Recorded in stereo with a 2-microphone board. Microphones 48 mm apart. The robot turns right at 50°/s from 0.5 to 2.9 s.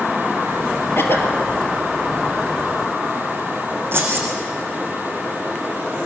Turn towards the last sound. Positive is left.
turn(degrees=-55)  # may be behind; listen again after turning